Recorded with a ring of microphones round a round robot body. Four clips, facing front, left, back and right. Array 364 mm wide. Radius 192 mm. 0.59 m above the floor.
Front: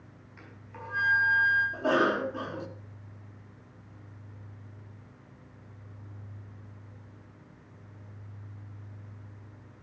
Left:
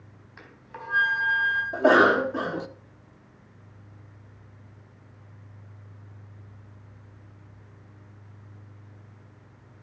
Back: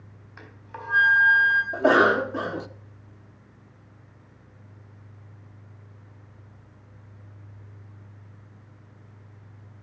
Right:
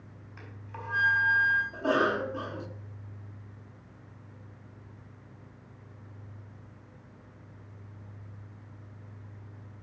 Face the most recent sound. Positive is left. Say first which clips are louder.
# left 12 dB, back 10 dB
turn(degrees=135)